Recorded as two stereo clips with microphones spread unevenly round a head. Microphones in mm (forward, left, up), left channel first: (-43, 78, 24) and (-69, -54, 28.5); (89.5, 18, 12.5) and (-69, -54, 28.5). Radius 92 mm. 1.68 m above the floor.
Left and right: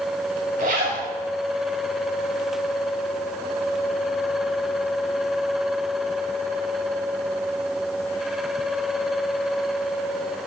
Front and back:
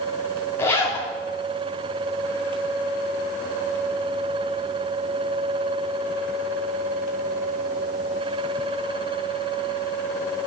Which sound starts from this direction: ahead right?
A zipper, at 0.6 s.